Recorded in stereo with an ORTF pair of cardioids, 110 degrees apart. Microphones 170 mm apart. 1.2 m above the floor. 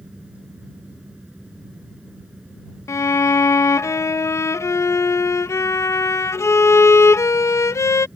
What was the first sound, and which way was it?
A fan, 5° right.